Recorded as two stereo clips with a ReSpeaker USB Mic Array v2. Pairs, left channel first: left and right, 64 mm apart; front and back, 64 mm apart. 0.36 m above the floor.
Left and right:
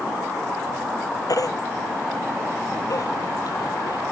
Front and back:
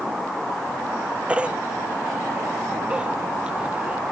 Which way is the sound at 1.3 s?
105° left.